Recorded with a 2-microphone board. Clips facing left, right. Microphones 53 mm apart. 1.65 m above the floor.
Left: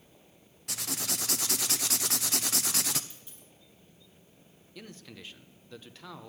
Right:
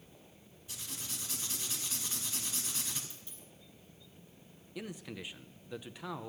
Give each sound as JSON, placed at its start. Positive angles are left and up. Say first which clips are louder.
{"t": 0.7, "sound": "writing", "louder": "left 9 dB", "side_deg": 75, "distance_m": 0.7}
{"t": 3.1, "sound": "a dropped coin", "louder": "even", "side_deg": 15, "distance_m": 5.0}
{"t": 4.8, "sound": "a man speaking", "louder": "right 4 dB", "side_deg": -10, "distance_m": 0.8}